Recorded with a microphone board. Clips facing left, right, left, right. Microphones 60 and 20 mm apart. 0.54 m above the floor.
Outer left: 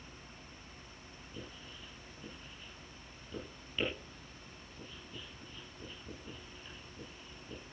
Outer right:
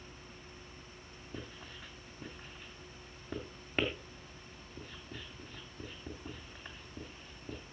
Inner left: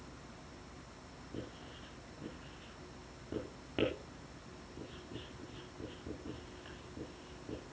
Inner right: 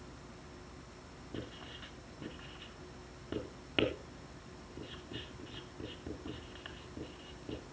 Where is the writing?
55° right (ahead or behind), 3 m.